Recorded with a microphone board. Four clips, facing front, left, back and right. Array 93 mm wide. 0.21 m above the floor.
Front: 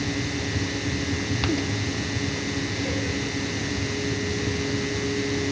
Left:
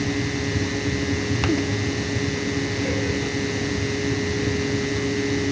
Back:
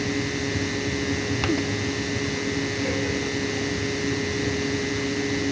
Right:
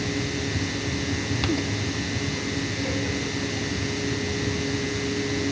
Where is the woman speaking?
I don't hear a woman speaking.